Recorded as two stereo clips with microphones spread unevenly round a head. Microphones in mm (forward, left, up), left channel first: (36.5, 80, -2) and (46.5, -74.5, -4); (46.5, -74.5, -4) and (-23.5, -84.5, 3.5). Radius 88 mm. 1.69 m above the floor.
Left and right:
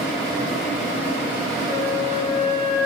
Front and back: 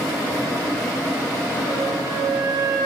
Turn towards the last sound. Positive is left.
turn(degrees=-155)